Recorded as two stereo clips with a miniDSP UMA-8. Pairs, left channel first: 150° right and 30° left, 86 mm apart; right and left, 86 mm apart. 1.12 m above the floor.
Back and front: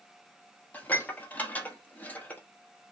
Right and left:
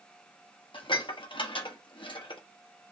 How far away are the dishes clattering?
About 1.1 m.